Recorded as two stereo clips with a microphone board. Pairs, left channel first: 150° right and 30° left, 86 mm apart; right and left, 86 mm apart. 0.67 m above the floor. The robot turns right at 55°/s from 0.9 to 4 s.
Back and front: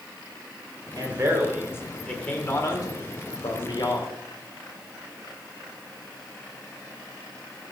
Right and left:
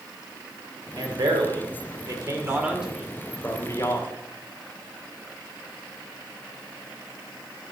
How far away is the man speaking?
About 2.0 m.